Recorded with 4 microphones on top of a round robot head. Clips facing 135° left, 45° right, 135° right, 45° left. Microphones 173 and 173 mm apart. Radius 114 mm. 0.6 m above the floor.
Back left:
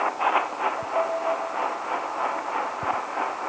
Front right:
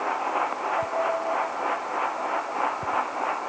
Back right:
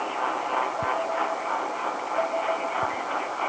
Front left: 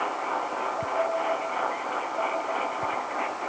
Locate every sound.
Only background noise.